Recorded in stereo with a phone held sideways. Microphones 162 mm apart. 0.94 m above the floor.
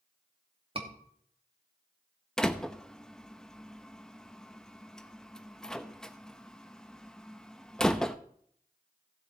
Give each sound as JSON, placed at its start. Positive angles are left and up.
{"t": 0.8, "sound": "a scream", "side_deg": -35, "distance_m": 2.5}
{"t": 2.4, "sound": "a door slam", "side_deg": 5, "distance_m": 0.7}